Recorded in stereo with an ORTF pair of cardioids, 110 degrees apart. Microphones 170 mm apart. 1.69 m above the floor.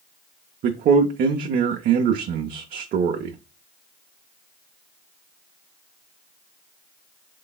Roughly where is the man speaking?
Ahead right.